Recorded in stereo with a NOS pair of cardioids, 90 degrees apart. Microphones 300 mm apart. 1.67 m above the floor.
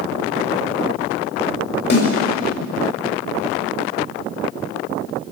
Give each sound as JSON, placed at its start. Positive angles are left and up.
{"t": 1.9, "sound": "a snare drum", "azimuth_deg": 65, "distance_m": 7.0}